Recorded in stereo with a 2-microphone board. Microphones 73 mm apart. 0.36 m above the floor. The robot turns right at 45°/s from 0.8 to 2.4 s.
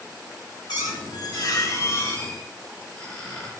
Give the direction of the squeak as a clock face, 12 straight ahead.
9 o'clock.